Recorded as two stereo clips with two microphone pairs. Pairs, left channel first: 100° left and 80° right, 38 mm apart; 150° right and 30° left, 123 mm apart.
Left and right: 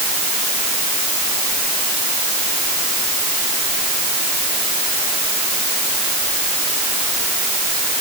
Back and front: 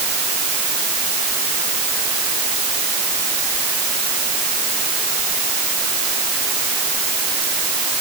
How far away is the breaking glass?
No breaking glass in this recording.